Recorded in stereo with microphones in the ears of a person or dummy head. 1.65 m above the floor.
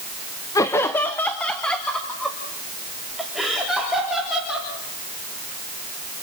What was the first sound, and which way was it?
Laughter, 15° left (ahead or behind).